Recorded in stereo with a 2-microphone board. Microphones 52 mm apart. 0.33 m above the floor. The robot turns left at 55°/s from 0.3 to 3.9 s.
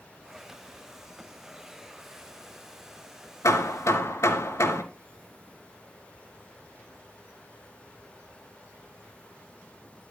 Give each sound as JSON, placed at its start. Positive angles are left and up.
{"t": 3.4, "sound": "hammering", "side_deg": 80, "distance_m": 3.5}